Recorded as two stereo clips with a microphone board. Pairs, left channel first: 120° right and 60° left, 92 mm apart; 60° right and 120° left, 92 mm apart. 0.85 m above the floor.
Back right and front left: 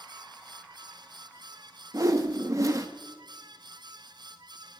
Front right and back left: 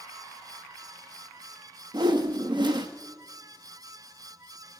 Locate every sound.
1.9 s a whoosh: 105° left, 0.8 m